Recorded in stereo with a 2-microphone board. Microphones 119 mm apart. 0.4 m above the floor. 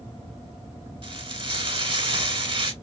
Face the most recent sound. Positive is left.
turn(degrees=-45)  # may be behind; listen again after turning